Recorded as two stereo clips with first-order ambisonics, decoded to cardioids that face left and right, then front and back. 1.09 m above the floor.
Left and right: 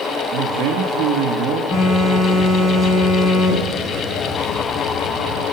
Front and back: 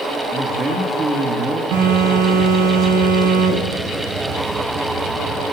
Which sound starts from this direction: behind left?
A phone buzzing, at 1.7 s.